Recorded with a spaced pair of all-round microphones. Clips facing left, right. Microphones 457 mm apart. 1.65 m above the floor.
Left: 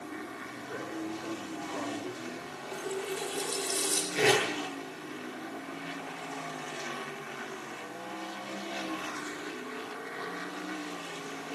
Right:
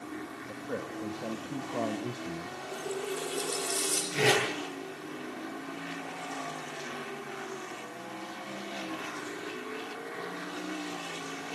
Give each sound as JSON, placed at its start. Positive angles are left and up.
{"t": 0.5, "sound": "a man speaking", "side_deg": -80, "distance_m": 3.0}
{"t": 2.7, "sound": "a running tap", "side_deg": 15, "distance_m": 5.5}
{"t": 4.1, "sound": "tape being pulled", "side_deg": -20, "distance_m": 10.0}